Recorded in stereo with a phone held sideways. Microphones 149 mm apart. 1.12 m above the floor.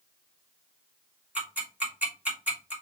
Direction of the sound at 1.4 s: 10° right (ahead or behind).